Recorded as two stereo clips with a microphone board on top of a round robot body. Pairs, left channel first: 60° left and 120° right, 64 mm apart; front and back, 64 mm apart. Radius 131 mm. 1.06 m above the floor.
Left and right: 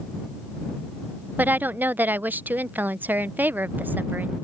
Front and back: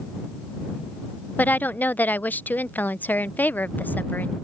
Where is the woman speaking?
60° right.